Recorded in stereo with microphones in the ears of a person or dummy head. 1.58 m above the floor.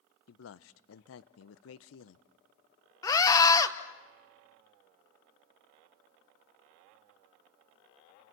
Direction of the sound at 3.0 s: 25° left (ahead or behind).